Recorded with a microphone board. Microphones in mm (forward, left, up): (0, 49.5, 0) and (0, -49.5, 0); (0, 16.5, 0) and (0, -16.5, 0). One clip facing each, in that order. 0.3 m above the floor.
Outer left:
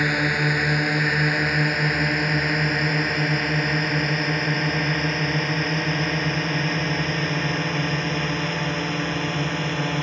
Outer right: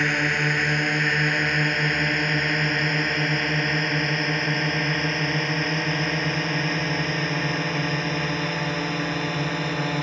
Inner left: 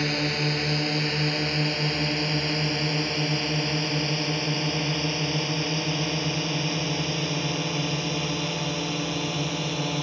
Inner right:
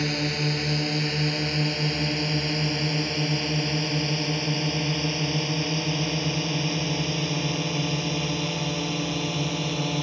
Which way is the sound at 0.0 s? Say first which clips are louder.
Outer left 2 dB, inner left 1 dB; 5° left (ahead or behind).